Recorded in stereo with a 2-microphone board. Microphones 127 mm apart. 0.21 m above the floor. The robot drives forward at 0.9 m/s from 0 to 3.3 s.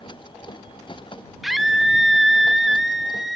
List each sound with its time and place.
1.4 s a scream: centre (ahead or behind), 1.7 m